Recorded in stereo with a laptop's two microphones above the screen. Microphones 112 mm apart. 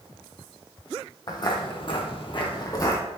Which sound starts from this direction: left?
Footsteps, at 1.3 s.